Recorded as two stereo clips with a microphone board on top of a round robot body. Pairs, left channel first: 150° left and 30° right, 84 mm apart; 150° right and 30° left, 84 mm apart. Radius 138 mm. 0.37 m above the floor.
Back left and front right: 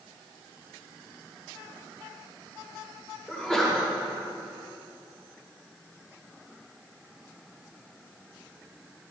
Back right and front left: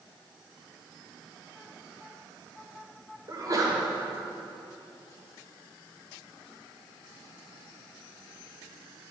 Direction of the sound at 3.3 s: 65° left.